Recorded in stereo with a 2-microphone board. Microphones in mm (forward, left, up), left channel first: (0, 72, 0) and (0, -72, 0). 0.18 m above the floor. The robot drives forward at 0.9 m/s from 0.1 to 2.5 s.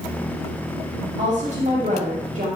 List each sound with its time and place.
1.2 s a woman speaking: 40° right (ahead or behind), 6.5 m; by 2.5 s 50° right (ahead or behind), 6 m